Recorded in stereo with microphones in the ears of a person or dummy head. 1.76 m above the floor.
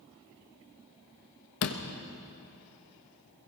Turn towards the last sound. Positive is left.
turn(degrees=45)  # may be behind; listen again after turning